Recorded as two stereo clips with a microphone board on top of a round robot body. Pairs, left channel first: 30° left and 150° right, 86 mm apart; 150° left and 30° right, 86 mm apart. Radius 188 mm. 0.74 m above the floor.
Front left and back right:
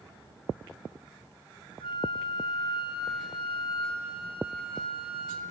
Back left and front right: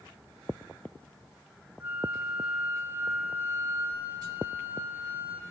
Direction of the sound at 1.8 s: 40° left.